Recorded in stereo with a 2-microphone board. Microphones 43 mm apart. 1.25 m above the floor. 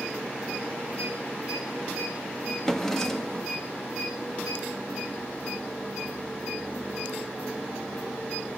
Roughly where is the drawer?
Centre.